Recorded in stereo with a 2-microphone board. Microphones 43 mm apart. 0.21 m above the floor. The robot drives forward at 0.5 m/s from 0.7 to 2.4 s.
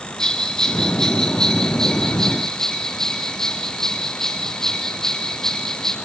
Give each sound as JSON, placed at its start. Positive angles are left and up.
{"t": 0.2, "sound": "a bell", "side_deg": 10, "distance_m": 2.0}